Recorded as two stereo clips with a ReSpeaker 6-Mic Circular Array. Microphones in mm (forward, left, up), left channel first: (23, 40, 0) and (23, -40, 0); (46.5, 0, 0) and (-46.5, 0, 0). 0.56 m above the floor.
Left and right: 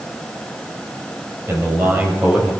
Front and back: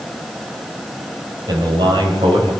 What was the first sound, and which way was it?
A man speaking, 150° right.